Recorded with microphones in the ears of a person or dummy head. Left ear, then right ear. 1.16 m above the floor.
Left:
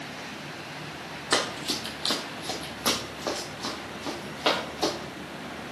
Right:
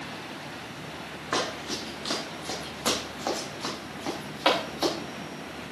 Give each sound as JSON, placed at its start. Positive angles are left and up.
{"t": 1.3, "sound": "running footsteps", "side_deg": 40, "distance_m": 1.5}